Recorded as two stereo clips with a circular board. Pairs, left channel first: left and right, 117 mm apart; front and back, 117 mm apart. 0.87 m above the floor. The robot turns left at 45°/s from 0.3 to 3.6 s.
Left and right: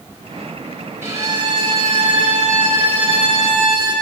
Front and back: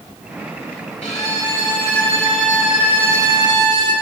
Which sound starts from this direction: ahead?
A violin, at 1.0 s.